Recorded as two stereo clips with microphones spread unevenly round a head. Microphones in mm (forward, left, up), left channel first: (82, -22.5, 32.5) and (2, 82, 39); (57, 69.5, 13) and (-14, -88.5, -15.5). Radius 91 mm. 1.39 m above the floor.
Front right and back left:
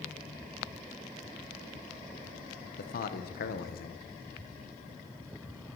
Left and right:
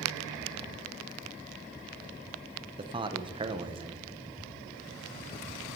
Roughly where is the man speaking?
Ahead right.